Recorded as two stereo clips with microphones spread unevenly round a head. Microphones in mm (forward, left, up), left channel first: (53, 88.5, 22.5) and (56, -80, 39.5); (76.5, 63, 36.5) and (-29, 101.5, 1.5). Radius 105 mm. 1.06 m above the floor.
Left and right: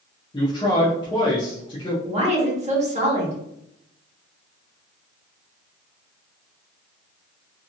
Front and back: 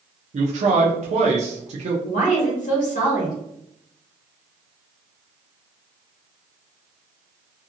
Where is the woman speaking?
40° right, 1.4 m.